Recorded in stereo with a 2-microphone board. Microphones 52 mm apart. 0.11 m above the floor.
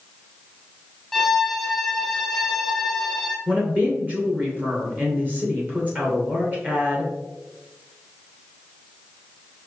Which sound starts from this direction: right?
A woman speaking, at 3.5 s.